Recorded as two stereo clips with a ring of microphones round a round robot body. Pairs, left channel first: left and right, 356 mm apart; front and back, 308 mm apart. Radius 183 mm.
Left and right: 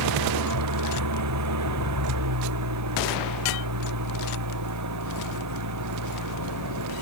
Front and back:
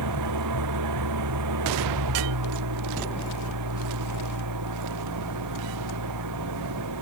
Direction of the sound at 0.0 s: 135° right.